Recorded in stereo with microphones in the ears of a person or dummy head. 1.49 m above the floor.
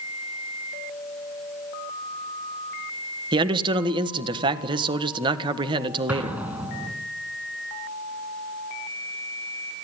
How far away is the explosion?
About 3 m.